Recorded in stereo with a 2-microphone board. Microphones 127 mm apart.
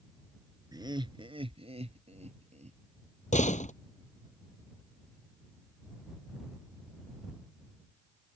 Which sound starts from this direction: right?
Laughter, at 0.7 s.